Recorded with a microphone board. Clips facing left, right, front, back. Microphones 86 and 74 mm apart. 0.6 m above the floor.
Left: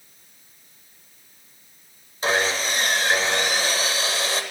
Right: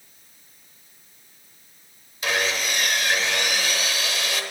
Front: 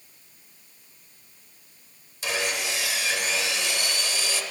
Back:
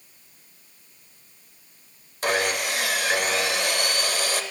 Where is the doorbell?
I don't hear a doorbell.